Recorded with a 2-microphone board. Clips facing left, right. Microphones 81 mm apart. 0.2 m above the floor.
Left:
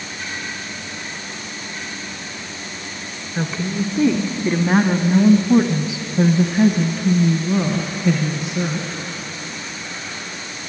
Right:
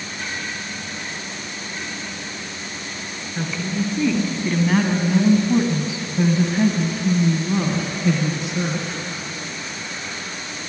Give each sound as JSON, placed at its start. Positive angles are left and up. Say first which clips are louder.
{"t": 3.4, "sound": "a woman speaking", "louder": "left 2 dB", "side_deg": 25, "distance_m": 2.0}